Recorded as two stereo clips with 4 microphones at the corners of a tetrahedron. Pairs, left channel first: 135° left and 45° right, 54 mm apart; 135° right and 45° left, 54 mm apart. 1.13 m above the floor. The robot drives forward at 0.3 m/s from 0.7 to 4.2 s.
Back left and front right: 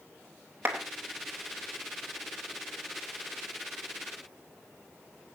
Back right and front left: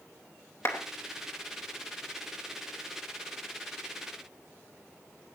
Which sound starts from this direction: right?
A clap, at 0.7 s.